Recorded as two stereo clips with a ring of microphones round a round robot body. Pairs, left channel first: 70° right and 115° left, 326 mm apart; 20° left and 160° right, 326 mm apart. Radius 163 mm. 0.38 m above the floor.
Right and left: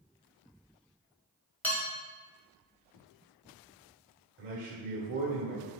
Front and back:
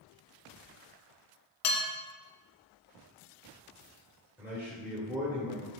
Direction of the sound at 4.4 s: 125° left.